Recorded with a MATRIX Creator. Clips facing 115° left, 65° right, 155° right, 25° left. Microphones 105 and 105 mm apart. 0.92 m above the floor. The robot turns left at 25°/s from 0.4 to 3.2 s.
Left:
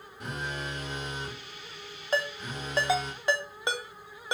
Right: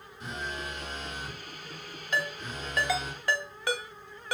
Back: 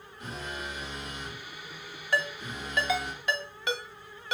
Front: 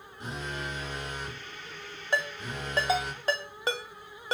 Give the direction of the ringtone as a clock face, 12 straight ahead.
9 o'clock.